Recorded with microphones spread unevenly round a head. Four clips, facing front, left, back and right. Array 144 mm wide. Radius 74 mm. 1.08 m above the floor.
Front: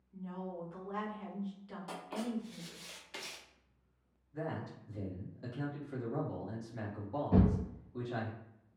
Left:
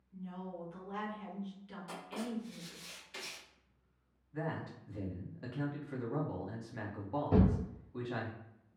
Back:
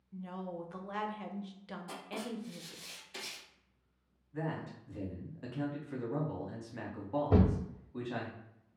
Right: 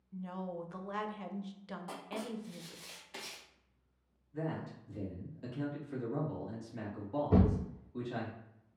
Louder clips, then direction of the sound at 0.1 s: Right 4 dB, back 1 dB; 150° right.